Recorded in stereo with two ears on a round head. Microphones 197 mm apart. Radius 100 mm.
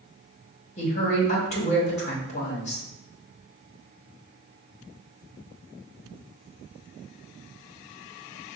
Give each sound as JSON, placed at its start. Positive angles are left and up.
{"t": 0.8, "sound": "a woman speaking", "side_deg": 30, "distance_m": 1.0}